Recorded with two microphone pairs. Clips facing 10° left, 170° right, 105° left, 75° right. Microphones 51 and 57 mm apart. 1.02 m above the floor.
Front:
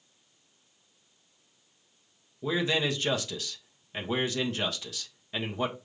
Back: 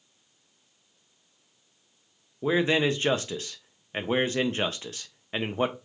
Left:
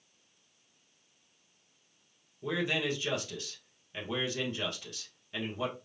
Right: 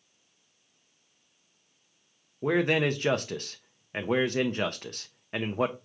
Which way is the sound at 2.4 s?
115° right.